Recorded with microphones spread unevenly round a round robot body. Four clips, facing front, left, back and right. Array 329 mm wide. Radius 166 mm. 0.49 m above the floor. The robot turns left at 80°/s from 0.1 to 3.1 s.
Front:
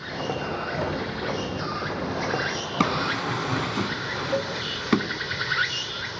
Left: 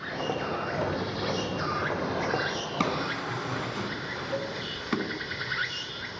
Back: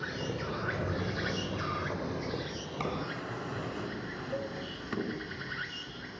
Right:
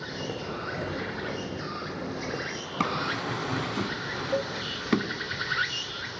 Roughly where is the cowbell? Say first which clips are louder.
Right 4 dB, front 10 dB; ahead right.